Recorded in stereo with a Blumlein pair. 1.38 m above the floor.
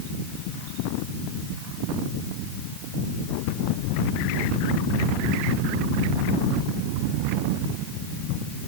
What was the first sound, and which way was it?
Only background noise.